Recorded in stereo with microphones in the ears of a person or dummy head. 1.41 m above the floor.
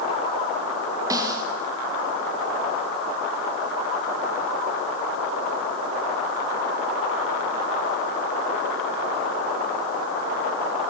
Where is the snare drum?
20° right (ahead or behind), 1.7 m.